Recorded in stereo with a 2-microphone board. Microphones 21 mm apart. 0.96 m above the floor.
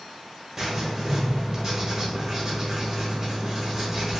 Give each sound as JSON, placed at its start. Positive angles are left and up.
{"t": 0.6, "sound": "writing", "side_deg": -20, "distance_m": 1.1}